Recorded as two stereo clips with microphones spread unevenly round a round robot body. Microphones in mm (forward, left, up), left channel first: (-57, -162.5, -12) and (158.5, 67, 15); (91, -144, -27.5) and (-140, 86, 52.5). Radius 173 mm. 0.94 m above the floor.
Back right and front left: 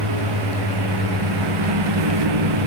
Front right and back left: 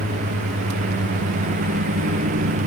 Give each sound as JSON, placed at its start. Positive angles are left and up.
{"t": 0.0, "sound": "a lawn mower", "azimuth_deg": 65}